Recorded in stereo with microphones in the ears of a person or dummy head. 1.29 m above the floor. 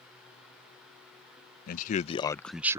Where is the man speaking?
60° left (ahead or behind); by 2.8 s 15° right (ahead or behind).